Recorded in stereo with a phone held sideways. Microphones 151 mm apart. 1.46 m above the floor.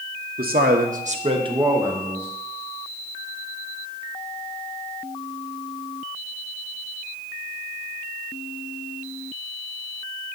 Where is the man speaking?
80° right, 1.1 m; by 2.3 s 5° right (ahead or behind), 1.7 m.